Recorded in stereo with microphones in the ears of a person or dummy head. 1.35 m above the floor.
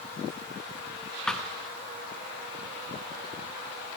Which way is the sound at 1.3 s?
Centre (ahead or behind).